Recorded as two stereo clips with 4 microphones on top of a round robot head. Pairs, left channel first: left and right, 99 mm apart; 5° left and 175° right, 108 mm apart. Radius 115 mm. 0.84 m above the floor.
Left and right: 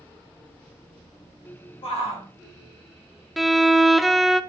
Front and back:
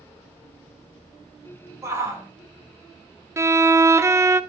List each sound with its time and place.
1.8 s a shout: 120° left, 2.5 m
3.4 s a violin: straight behind, 0.6 m